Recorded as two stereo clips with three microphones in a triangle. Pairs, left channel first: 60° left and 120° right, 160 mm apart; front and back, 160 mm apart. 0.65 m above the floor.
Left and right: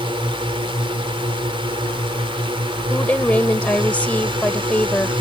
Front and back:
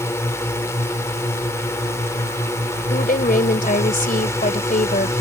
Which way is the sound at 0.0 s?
70° right.